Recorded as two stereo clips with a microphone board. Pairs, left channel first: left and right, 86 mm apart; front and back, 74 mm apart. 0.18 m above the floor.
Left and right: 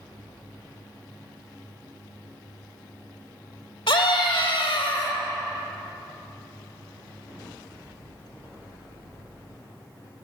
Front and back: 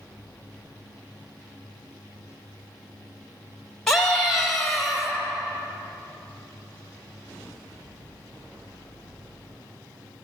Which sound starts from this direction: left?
A scream, at 3.9 s.